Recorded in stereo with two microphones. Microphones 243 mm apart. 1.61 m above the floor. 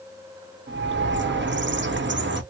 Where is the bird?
50° right (ahead or behind), 0.7 m.